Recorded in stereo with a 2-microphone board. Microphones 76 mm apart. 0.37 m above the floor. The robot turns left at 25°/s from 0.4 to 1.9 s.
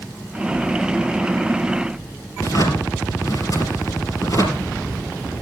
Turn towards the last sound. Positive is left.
turn(degrees=50)  # may be behind; listen again after turning